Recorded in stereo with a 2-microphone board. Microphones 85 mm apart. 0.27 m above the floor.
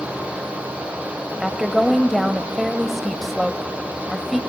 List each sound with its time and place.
1.4 s a woman speaking: centre (ahead or behind), 0.9 m